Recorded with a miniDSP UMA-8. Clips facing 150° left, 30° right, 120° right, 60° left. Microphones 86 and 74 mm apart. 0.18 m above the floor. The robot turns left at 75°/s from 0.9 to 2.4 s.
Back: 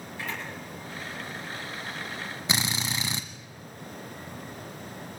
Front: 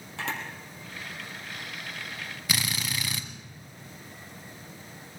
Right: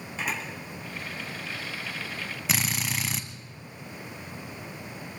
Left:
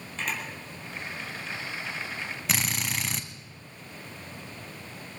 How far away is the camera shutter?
About 4 m.